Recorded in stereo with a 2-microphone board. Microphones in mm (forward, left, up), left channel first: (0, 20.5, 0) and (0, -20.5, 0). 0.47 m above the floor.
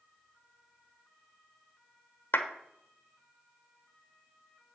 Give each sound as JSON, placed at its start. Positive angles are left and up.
{"t": 2.3, "sound": "a clap", "side_deg": 55, "distance_m": 1.1}